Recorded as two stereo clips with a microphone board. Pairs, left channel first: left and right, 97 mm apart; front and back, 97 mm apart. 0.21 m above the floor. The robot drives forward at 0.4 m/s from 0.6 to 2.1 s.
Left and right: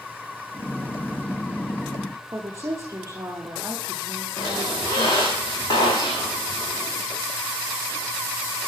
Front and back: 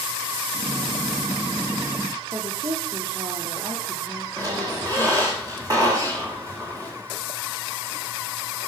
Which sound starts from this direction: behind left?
A squeak, at 4.4 s.